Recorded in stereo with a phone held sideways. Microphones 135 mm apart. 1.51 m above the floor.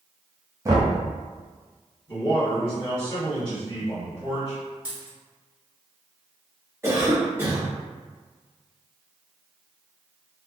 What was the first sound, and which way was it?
Knocking, 25° right (ahead or behind).